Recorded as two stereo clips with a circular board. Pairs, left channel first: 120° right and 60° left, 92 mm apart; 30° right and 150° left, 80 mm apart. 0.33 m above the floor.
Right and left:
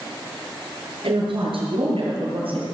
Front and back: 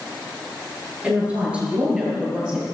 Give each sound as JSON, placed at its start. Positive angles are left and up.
{"t": 1.0, "sound": "a woman speaking", "azimuth_deg": 80, "distance_m": 5.5}